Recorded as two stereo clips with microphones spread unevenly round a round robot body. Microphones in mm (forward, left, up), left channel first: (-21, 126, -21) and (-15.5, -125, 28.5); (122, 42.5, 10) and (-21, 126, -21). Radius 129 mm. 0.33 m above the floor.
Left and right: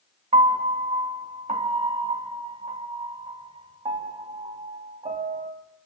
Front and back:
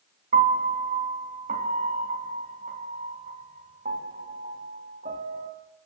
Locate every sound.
0.3 s a piano: 160° right, 3 m